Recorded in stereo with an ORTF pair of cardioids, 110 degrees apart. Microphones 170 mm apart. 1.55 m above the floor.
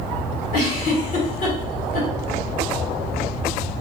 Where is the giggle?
55° left, 1.4 m.